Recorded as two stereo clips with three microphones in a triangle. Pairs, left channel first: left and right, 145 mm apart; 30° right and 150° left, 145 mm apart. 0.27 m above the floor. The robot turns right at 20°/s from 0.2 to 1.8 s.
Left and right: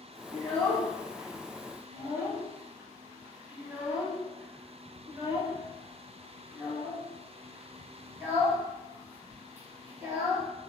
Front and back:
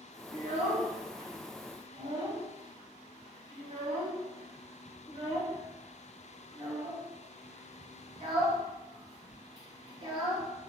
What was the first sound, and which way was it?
A child speaking, 165° left.